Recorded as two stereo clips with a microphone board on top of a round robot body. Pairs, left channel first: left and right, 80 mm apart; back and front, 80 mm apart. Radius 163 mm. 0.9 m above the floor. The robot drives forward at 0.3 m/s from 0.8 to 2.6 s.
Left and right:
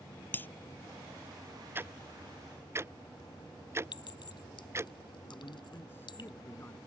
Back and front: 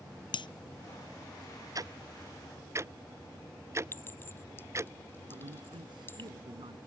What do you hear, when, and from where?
0.3 s breaking glass: 155° left
1.8 s ticking: 30° right; by 4.9 s 45° right
3.9 s a clink: 115° left
5.3 s a man speaking: 25° left